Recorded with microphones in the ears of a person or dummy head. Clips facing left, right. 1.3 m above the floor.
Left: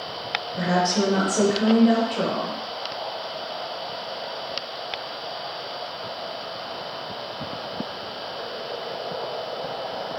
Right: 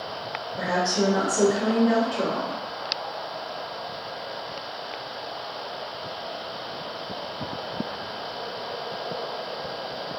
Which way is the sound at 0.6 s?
35° left (ahead or behind).